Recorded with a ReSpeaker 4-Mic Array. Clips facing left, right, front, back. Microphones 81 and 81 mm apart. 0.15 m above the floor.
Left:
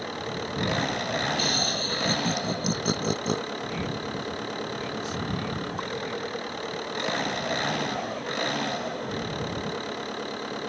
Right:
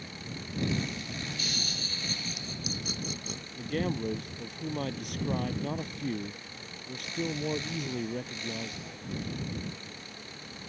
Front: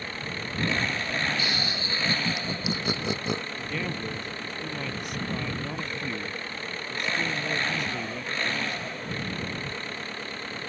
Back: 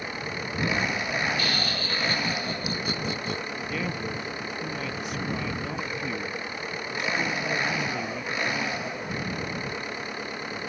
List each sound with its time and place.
0.0 s an engine running: 105° left
1.4 s laughter: 65° left
3.5 s a man speaking: 90° right